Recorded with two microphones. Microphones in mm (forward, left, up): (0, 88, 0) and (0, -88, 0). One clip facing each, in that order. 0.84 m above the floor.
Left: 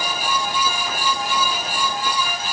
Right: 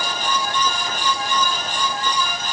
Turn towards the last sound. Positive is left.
No sound to turn to.